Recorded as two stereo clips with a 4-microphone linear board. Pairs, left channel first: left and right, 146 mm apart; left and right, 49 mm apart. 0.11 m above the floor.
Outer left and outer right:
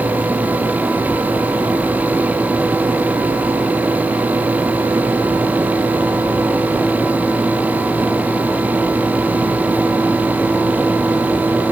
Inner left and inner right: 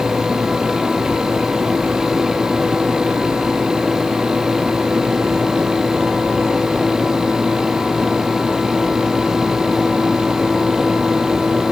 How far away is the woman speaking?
No woman speaking in this recording.